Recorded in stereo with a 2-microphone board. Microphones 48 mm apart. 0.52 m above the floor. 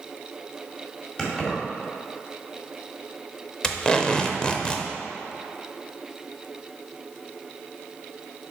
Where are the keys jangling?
20° left (ahead or behind), 1.8 m.